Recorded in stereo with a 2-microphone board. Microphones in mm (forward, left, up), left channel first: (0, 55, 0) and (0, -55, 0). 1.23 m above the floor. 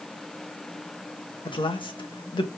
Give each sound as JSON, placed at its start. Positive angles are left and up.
{"t": 1.4, "sound": "a man speaking", "side_deg": 45, "distance_m": 1.6}